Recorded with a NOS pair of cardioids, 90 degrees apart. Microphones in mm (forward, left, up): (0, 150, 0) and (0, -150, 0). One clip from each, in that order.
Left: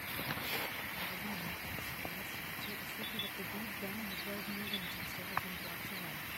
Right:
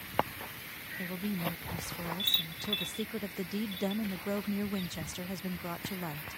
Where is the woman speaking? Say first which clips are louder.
Right 3 dB; 55° right, 0.5 m.